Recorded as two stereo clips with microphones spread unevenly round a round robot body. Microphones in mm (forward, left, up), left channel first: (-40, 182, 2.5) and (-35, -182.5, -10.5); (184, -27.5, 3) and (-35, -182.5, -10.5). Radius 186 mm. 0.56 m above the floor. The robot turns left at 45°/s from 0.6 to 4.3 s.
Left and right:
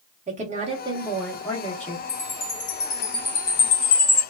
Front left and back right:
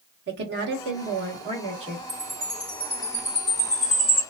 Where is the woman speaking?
150° right, 0.8 m; by 2.0 s 150° left, 0.8 m.